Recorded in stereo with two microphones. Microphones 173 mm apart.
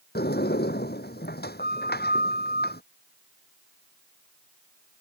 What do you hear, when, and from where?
0.1 s a sliding door: 85° left